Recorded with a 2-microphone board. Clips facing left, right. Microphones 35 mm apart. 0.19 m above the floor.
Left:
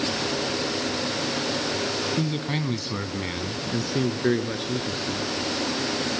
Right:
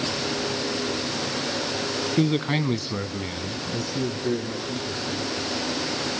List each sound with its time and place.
2.2 s a man speaking: 35° right (ahead or behind), 1.6 m; by 5.3 s 65° left (ahead or behind), 3.5 m